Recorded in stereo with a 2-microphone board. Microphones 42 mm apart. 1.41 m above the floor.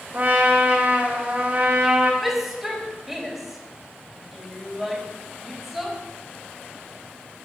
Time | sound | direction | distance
0.1 | a trumpet | 35° right (ahead or behind) | 2 m
2.2 | a shout | 5° right (ahead or behind) | 3.5 m